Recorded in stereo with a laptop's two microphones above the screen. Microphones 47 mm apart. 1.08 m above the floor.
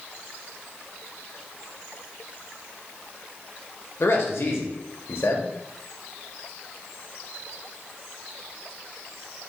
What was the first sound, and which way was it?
A man speaking, 60° left (ahead or behind).